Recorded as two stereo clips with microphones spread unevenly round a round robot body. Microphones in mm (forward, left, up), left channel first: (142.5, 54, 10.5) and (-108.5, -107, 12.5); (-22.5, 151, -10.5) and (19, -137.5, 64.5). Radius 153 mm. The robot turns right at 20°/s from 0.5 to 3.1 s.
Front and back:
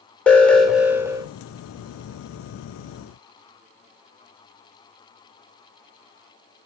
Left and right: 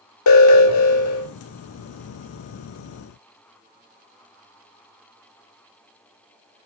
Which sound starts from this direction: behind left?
An alarm, at 0.3 s.